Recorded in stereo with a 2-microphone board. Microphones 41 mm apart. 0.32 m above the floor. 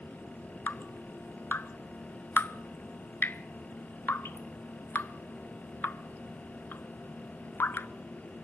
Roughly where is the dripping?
Left.